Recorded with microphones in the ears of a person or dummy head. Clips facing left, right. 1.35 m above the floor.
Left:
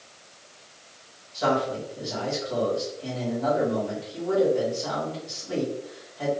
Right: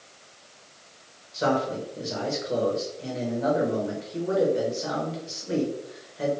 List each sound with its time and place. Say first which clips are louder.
1.3 s a man speaking: even; 35° right (ahead or behind), 1.3 m